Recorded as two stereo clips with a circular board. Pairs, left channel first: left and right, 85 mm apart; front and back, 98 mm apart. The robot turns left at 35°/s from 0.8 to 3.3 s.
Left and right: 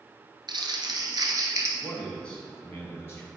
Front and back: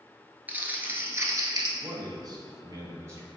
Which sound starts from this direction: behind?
A man speaking, at 1.8 s.